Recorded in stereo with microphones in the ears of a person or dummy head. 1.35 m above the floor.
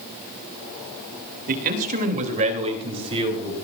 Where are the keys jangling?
No keys jangling in this recording.